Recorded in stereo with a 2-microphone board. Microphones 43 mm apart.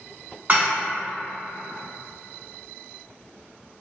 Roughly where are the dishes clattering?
Right.